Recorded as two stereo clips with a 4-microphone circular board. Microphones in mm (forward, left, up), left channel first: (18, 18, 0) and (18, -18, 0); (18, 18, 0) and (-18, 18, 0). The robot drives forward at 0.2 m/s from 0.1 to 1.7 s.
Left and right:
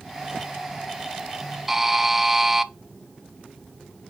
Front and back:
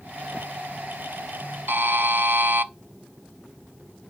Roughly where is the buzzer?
Behind.